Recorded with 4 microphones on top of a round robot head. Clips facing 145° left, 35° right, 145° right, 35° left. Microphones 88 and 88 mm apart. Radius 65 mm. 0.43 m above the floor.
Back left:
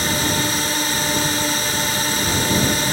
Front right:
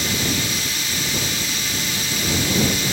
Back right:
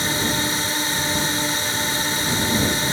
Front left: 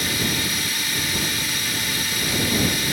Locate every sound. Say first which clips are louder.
0.0 s a drone: back left 3 dB, back right 3 dB; 170° left